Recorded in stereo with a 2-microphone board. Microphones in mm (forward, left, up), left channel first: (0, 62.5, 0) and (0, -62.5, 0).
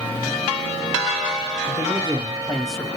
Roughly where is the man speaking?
Right.